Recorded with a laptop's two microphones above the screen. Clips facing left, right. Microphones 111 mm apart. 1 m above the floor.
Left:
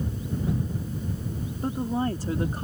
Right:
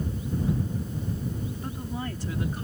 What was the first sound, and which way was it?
A woman speaking, 35° left (ahead or behind).